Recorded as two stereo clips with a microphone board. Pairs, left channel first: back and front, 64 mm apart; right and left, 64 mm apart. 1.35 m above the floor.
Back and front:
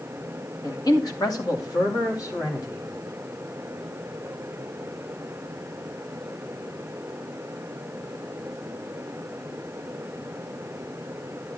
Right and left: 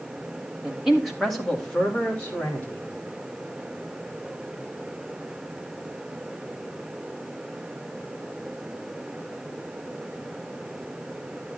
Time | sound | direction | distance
0.6 | a man speaking | 170° left | 2.5 m